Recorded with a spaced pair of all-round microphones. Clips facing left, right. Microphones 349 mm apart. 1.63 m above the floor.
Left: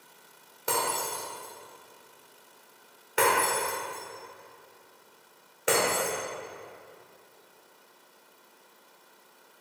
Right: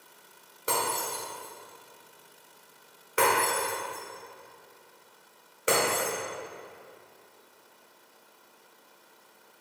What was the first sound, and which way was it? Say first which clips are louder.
Breaking glass: even; 5° right (ahead or behind).